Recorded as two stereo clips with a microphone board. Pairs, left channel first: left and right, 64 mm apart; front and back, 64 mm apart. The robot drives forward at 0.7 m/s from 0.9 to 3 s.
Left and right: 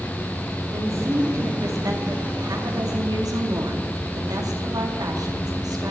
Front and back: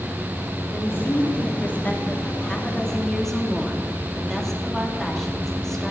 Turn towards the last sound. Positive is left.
turn(degrees=-85)